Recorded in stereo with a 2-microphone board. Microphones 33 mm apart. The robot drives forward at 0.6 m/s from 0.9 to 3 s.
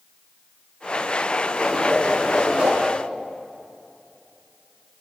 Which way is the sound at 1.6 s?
40° right (ahead or behind).